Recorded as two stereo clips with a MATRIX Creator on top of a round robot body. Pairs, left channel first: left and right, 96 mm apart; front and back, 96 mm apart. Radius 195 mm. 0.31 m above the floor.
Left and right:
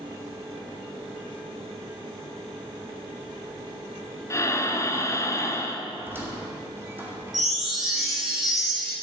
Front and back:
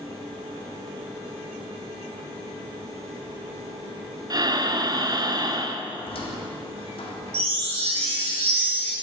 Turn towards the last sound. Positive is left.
turn(degrees=180)